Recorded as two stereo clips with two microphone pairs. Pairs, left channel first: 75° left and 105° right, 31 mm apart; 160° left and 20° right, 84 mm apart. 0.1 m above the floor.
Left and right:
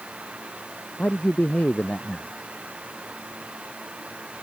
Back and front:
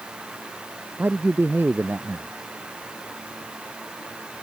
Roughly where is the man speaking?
Ahead left.